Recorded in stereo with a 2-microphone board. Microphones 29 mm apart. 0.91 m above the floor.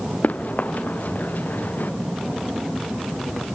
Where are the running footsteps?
60° left (ahead or behind); by 1.9 s 80° left.